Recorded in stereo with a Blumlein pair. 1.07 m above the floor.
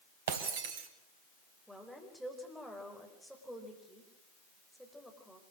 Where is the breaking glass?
55° right, 2.5 m.